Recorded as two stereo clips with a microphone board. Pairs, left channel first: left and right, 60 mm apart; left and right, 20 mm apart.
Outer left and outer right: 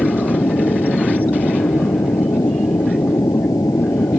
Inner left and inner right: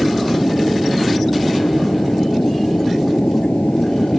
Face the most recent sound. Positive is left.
turn(degrees=70)  # may be behind; listen again after turning